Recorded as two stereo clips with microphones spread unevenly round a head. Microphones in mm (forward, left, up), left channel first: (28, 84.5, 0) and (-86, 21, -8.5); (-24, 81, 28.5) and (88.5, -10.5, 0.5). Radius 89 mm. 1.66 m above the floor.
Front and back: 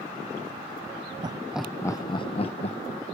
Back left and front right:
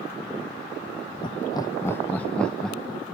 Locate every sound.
1.2 s laughter: 170° left, 0.7 m; by 3.0 s 55° left, 1.6 m